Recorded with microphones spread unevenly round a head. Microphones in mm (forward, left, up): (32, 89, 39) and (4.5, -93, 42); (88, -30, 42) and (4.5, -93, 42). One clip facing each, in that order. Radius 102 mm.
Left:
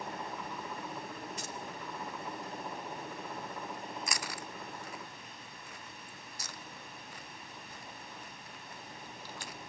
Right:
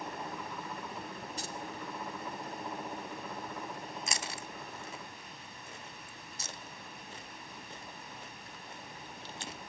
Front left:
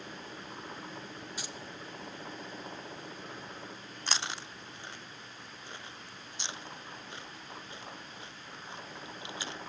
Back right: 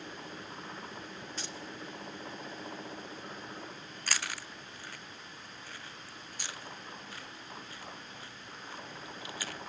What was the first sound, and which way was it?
Keys jangling, 40° right.